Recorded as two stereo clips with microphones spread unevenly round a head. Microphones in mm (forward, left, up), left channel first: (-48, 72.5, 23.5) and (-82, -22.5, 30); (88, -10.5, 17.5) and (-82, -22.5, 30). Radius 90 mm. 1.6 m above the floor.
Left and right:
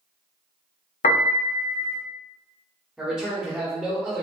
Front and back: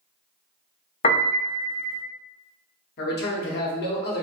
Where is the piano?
65° left, 0.5 m.